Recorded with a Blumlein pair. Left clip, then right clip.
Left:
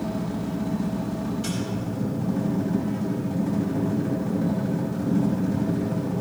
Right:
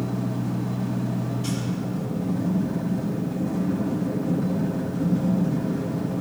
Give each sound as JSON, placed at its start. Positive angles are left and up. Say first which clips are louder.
{"t": 0.0, "sound": "a machine running", "louder": "even", "azimuth_deg": 25, "distance_m": 4.5}